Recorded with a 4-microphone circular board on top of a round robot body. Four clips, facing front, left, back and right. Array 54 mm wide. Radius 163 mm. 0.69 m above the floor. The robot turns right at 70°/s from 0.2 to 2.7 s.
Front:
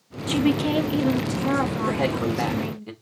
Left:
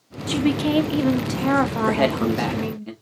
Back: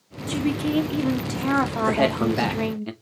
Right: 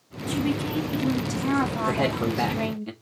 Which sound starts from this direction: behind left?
A man speaking, at 1.9 s.